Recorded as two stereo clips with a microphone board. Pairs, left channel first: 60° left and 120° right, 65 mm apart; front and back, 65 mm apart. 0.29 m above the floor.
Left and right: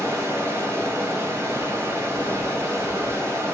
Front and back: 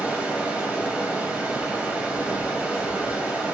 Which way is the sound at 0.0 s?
120° right.